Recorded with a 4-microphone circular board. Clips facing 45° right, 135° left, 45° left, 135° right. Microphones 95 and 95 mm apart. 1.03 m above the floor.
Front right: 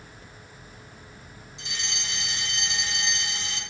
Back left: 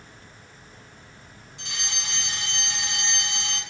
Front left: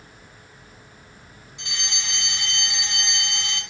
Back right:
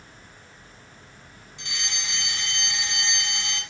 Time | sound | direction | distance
1.6 | a fire alarm | 115° left | 2 m